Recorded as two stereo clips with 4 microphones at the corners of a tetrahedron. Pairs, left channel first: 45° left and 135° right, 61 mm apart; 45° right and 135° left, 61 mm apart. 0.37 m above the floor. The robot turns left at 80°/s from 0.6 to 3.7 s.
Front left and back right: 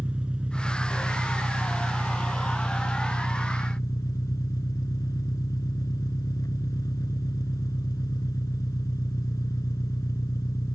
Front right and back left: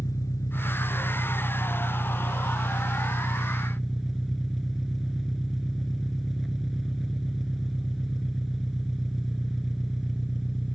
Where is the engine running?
65° right; by 10.8 s 50° left.